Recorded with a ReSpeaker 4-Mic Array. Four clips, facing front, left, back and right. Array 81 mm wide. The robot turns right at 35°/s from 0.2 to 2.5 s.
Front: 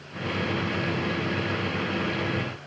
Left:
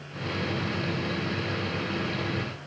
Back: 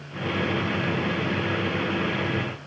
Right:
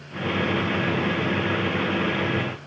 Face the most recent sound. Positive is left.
No sound to turn to.